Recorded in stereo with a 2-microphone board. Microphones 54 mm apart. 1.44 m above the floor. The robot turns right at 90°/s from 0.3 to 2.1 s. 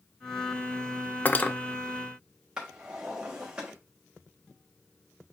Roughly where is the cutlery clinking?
Left.